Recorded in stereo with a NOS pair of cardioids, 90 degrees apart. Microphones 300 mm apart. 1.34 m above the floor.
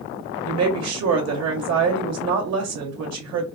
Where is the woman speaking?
60° right, 1.4 m.